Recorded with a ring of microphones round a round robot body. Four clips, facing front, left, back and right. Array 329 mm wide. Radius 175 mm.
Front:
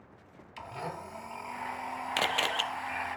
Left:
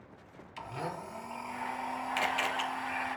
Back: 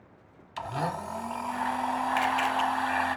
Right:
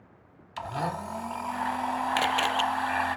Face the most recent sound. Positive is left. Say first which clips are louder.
# right 5 dB, back 3 dB
turn(degrees=-45)